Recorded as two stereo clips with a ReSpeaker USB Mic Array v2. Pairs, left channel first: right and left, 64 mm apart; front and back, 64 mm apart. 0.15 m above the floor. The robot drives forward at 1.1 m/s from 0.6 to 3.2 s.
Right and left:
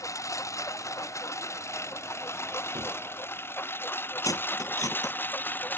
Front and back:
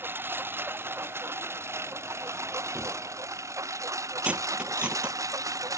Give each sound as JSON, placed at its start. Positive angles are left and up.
{"t": 0.0, "sound": "a lawn mower", "azimuth_deg": -125}
{"t": 2.8, "sound": "a gunshot", "azimuth_deg": 85}
{"t": 4.2, "sound": "cutlery clinking", "azimuth_deg": -110}